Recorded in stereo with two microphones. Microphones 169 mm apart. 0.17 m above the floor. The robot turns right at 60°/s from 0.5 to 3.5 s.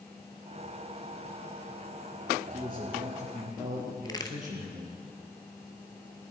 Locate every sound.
2.5 s a man speaking: 175° left, 3.5 m; by 5.0 s 125° right, 3.5 m
4.0 s a crack: 25° left (ahead or behind), 1.0 m